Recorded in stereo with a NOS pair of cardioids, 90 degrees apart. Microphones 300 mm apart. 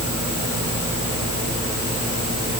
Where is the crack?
No crack in this recording.